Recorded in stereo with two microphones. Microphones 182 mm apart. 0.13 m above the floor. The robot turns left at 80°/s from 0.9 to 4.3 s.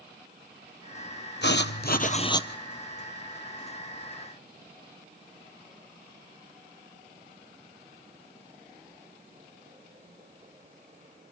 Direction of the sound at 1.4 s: 100° left.